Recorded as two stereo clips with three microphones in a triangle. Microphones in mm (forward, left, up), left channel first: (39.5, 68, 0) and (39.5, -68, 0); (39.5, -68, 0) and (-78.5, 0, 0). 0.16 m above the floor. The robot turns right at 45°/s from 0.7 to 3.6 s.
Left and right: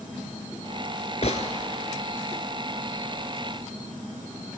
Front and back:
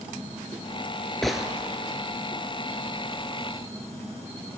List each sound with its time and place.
1.2 s a gunshot: 55° left, 0.8 m; by 1.5 s 65° left, 0.8 m